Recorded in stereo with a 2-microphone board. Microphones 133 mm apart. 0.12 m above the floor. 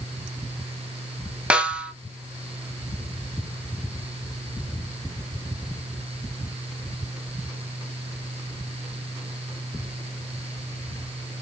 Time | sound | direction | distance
1.5 | a snare drum | 10° right (ahead or behind) | 0.5 m